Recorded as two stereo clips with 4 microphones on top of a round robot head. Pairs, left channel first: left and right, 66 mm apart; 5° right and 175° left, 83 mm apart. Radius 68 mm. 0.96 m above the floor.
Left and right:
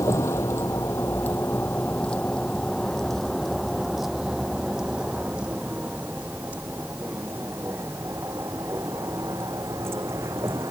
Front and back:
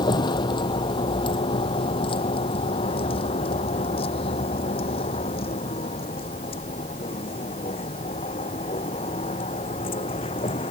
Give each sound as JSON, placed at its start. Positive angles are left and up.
{"t": 0.0, "sound": "a vehicle", "azimuth_deg": 30}